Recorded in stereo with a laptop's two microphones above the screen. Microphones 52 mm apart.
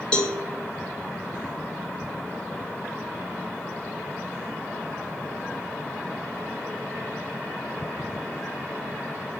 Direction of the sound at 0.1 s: 20° left (ahead or behind).